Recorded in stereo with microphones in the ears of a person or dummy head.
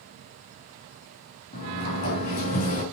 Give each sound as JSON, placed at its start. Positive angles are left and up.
{"t": 1.5, "sound": "a sliding door", "side_deg": 40, "distance_m": 3.0}